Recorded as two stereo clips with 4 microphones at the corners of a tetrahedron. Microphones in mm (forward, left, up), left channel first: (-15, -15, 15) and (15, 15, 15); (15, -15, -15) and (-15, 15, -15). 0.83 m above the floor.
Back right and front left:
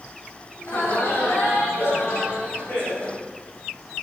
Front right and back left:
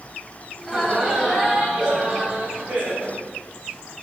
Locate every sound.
0.6 s laughter: 150° right, 5.5 m; by 3.2 s 170° right, 6 m